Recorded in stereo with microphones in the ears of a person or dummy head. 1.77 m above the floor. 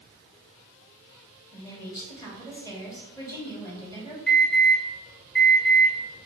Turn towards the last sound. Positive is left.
turn(degrees=10)  # may be behind; listen again after turning